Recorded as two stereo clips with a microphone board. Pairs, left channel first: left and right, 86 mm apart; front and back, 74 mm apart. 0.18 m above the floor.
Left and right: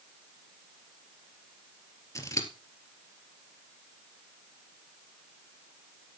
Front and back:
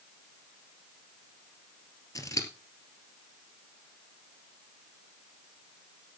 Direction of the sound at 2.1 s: 40° left.